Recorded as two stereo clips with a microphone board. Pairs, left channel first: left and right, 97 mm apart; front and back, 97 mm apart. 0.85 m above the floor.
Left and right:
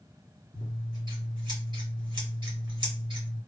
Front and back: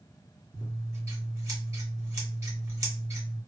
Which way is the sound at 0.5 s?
125° right.